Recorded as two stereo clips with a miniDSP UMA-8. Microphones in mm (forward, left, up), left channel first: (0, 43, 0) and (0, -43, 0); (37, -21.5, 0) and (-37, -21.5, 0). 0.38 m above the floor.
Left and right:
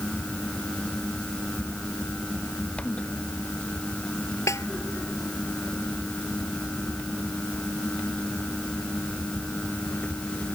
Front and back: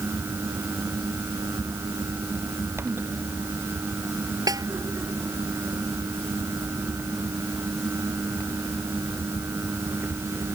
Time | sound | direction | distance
4.5 | a snare drum | 145° left | ?